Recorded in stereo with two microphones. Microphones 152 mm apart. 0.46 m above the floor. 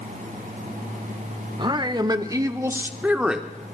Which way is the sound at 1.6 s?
30° right (ahead or behind).